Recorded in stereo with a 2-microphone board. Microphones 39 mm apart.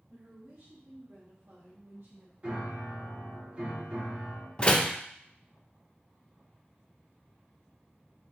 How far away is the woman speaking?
About 1.9 m.